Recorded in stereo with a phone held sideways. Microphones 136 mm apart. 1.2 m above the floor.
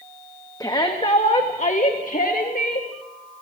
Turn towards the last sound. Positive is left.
turn(degrees=85)